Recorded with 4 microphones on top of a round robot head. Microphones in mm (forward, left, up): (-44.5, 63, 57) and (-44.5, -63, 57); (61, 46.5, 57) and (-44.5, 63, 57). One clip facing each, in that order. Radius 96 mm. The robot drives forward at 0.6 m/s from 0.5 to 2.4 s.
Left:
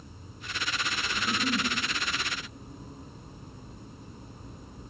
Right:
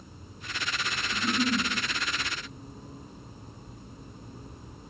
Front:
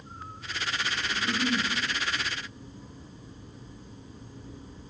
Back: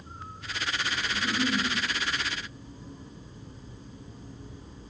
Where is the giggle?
105° right, 3 m; by 1.6 s 110° right, 3 m.